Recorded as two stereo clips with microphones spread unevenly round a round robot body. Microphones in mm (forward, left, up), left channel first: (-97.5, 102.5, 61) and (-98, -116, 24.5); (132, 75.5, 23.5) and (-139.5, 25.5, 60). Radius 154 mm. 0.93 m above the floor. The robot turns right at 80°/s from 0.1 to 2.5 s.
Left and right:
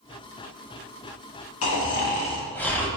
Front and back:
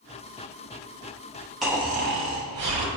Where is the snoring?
100° left, 1.1 m; by 2.9 s 170° left, 1.1 m.